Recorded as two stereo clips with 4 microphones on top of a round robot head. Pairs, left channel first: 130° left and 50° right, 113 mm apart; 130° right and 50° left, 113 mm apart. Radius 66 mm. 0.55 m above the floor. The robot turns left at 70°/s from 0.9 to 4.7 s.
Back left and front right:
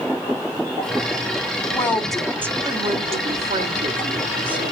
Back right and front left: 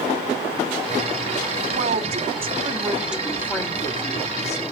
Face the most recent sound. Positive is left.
turn(degrees=-140)